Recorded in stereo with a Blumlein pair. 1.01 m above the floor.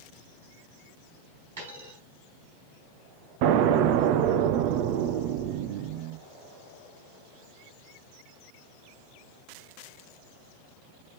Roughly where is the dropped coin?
Ahead right.